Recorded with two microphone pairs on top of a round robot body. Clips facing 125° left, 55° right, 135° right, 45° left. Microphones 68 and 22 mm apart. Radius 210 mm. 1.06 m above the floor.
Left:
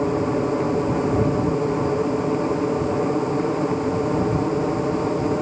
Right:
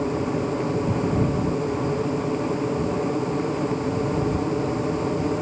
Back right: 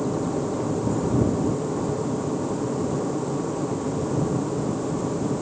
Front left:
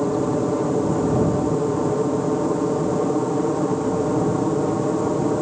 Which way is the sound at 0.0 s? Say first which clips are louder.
Left 3 dB, front left 5 dB; 65° left.